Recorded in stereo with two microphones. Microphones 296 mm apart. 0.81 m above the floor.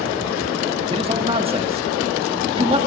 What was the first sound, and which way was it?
A man speaking, 20° right (ahead or behind).